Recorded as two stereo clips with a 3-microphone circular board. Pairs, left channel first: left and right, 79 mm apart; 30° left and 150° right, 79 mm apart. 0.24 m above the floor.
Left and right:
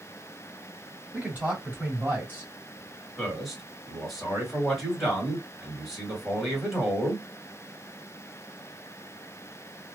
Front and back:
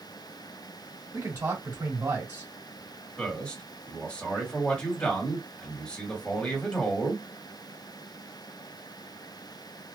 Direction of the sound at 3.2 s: Straight ahead.